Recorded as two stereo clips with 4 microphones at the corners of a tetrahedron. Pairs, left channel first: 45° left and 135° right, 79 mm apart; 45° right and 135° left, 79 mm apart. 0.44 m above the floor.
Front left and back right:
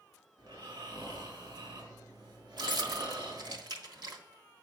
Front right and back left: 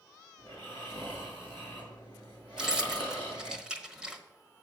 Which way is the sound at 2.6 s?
145° right.